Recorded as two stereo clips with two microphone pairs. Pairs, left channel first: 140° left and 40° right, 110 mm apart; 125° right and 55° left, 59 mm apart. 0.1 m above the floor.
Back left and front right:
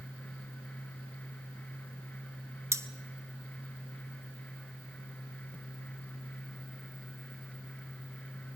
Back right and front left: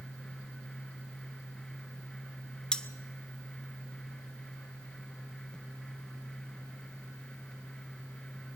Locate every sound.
2.7 s cutlery clinking: 70° right, 0.7 m